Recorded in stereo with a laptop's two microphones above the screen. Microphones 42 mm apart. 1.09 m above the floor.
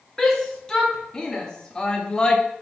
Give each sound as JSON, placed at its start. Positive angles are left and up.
{"t": 0.2, "sound": "a shout", "side_deg": 15, "distance_m": 2.5}